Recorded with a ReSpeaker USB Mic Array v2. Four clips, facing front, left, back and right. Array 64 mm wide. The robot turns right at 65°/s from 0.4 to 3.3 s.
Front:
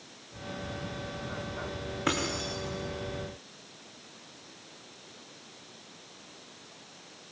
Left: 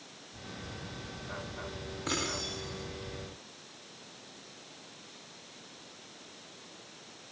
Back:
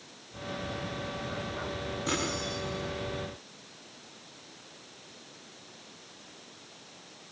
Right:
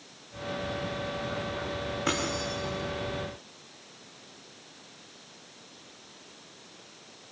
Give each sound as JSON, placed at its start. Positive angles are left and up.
{"t": 2.1, "sound": "keys jangling", "azimuth_deg": -25, "distance_m": 8.0}